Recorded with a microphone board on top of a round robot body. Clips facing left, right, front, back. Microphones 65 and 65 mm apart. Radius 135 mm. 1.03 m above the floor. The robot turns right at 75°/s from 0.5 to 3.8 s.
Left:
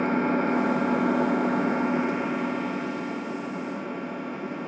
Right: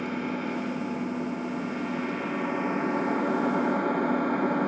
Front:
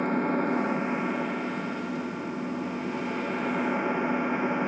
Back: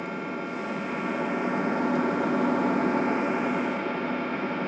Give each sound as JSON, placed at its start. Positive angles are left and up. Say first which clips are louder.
{"t": 0.0, "sound": "an engine running", "louder": "left 7 dB, front 6 dB", "azimuth_deg": 40, "distance_m": 1.0}